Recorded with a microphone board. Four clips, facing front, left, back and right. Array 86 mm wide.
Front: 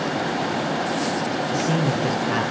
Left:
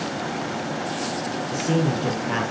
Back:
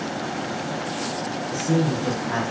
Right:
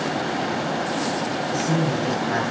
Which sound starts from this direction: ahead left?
A man speaking, at 1.5 s.